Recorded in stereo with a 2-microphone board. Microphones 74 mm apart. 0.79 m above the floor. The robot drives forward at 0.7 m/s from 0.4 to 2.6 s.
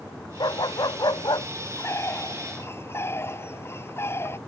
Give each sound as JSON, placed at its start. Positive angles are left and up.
{"t": 0.4, "sound": "a dog barking", "side_deg": 80}
{"t": 1.8, "sound": "a bird", "side_deg": 40}